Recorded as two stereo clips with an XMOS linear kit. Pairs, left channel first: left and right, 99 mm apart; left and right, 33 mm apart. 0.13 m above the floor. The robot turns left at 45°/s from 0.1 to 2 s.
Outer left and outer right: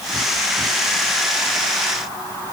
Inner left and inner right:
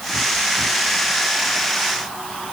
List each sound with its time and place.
Only background noise.